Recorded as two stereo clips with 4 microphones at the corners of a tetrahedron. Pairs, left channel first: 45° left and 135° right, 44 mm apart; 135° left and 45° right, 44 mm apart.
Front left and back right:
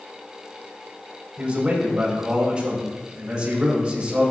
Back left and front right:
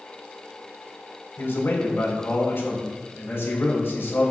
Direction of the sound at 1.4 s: 160° left.